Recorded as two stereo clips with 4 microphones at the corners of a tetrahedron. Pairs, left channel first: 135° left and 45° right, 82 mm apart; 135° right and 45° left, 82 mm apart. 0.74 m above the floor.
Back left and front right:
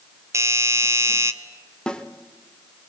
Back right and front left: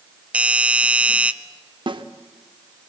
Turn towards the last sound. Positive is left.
turn(degrees=55)